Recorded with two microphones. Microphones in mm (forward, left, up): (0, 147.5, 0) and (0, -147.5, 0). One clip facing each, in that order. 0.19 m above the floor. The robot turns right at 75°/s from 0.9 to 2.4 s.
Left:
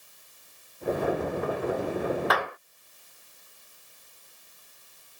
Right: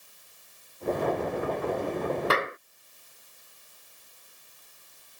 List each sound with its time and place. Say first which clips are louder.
2.3 s a clap: right 1 dB; 30° right (ahead or behind); by 2.6 s 25° right (ahead or behind)